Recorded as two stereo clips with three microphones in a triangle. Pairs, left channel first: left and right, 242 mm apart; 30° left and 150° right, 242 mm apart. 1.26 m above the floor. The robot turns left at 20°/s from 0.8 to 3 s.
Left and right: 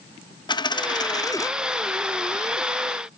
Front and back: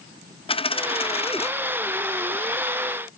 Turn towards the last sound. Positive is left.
turn(degrees=5)